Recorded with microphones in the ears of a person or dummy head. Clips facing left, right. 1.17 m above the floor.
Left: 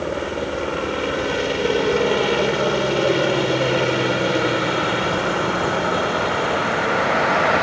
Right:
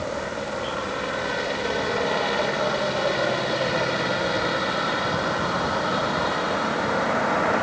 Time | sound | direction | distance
0.0 | a helicopter | 50° left (ahead or behind) | ?